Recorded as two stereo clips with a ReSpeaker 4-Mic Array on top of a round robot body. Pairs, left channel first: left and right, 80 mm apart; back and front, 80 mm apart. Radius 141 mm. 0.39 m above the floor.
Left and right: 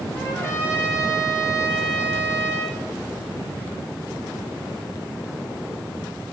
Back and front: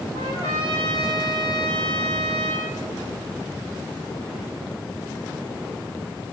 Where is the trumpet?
145° left, 4 m.